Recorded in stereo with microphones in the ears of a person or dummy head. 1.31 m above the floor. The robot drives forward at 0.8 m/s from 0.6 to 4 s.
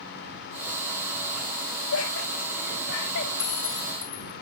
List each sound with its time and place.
1.9 s laughter: 80° left, 1.5 m; by 3.3 s 50° left (ahead or behind), 2.0 m
3.4 s a clink: 15° right (ahead or behind), 2 m; by 4.3 s 10° right (ahead or behind), 2.5 m